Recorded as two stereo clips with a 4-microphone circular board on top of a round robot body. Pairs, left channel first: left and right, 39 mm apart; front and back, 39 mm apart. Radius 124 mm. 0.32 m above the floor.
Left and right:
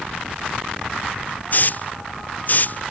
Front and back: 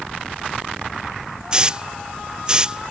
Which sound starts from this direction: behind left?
A hiss, at 1.5 s.